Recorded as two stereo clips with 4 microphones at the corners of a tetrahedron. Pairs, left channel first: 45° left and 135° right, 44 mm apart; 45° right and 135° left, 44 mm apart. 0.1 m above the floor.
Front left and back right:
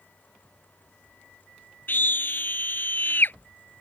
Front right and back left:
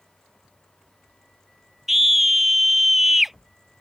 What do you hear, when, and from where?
1.9 s a scream: 50° left